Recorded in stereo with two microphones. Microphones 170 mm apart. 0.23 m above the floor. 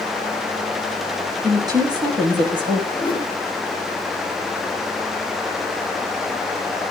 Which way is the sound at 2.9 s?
25° left (ahead or behind).